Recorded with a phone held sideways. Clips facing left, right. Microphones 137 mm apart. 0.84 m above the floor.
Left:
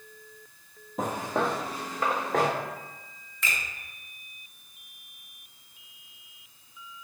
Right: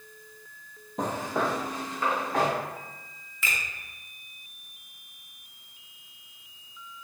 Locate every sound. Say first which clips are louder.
1.0 s footsteps: even; 5° left (ahead or behind), 0.9 m; by 2.5 s 45° left (ahead or behind), 2 m
3.4 s a finger snap: even; 5° right (ahead or behind), 0.8 m